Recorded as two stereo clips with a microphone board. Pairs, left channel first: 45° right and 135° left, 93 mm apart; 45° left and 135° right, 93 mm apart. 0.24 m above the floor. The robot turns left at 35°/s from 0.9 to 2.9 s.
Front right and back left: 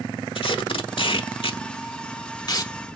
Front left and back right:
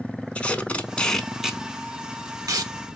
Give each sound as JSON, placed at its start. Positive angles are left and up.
{"t": 0.3, "sound": "tape being pulled", "azimuth_deg": -30, "distance_m": 0.6}